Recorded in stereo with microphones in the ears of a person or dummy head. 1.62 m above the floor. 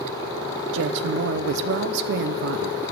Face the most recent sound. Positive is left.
turn(degrees=-70)  # may be behind; listen again after turning